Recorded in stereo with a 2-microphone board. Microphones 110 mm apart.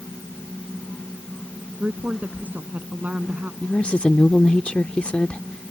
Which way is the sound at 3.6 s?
10° left (ahead or behind).